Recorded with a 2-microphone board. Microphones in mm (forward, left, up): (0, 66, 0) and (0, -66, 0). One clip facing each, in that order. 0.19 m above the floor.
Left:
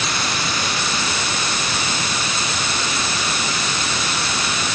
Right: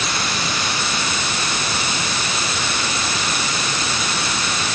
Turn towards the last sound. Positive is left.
No sound to turn to.